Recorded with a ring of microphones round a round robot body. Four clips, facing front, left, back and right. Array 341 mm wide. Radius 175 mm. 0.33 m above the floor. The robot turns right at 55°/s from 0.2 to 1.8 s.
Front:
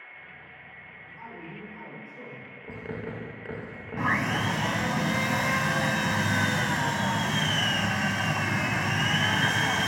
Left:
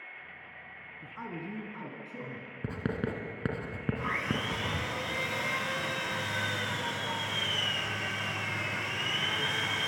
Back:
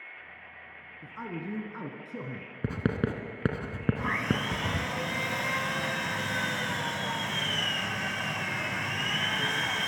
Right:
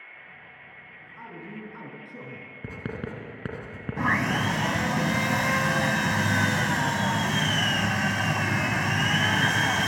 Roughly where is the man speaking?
Behind left.